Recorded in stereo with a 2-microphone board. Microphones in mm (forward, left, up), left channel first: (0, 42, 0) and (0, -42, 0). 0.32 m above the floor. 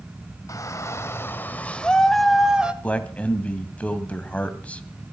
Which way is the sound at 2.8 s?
15° left (ahead or behind).